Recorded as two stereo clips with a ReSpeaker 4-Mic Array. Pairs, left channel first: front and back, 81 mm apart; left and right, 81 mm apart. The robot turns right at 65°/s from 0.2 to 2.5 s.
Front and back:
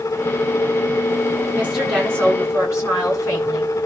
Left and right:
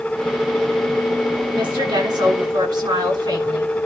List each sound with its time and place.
1.5 s a woman speaking: 115° right, 8.5 m; by 3.8 s 55° right, 8.5 m